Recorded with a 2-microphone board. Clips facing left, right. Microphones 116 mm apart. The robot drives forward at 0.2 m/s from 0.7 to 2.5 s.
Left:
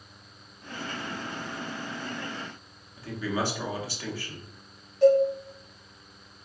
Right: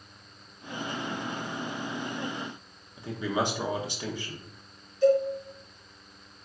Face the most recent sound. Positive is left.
turn(degrees=75)  # may be behind; listen again after turning